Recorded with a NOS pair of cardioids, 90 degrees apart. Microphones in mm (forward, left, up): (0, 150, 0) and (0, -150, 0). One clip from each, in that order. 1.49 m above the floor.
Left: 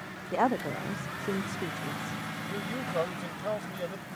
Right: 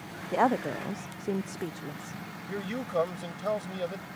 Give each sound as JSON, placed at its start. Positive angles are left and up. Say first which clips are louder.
{"t": 0.3, "sound": "a woman speaking", "louder": "right 2 dB", "azimuth_deg": -5}
{"t": 2.5, "sound": "a man speaking", "louder": "right 3 dB", "azimuth_deg": -15}